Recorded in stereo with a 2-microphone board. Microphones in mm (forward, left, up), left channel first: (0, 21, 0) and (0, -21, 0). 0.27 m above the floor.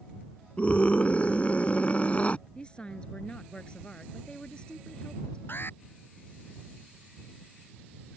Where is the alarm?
55° left (ahead or behind).